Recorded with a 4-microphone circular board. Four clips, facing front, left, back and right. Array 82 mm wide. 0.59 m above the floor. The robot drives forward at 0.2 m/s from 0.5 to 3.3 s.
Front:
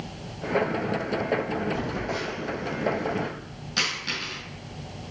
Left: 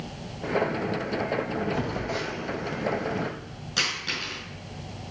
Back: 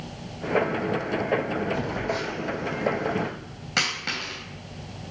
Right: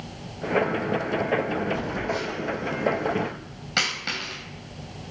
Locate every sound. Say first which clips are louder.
1.7 s a phone buzzing: right 2 dB, back 2 dB; 135° left, 2.5 m; by 3.3 s 140° left, 2.5 m
3.8 s a dropped coin: right 3 dB, back 2 dB; 150° right, 3 m